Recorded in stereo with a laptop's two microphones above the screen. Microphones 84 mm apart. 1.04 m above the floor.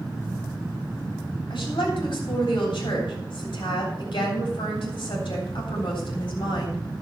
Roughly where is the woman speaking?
Left.